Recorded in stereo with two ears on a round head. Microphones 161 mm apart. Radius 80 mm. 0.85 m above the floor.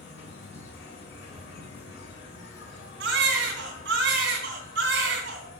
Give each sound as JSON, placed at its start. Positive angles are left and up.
{"t": 0.0, "sound": "an insect", "side_deg": 70, "distance_m": 4.5}
{"t": 3.0, "sound": "a baby crying", "side_deg": -65, "distance_m": 3.0}